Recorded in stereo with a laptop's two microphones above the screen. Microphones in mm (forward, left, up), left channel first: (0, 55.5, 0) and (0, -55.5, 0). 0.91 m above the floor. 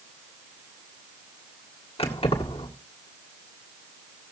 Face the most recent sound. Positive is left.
turn(degrees=60)  # may be behind; listen again after turning